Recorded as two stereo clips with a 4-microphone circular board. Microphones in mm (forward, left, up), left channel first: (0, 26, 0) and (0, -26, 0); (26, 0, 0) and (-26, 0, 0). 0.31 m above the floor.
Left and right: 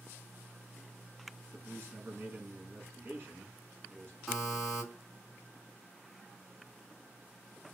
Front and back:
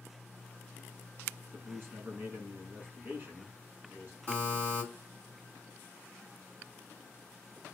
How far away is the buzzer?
About 2.5 m.